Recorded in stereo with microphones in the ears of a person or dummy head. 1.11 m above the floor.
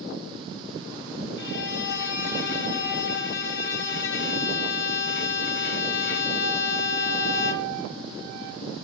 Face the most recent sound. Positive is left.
turn(degrees=60)  # may be behind; listen again after turning